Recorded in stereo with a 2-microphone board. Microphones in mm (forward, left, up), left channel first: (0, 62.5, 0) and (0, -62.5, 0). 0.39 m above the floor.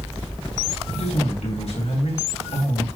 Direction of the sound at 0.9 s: 60° left (ahead or behind).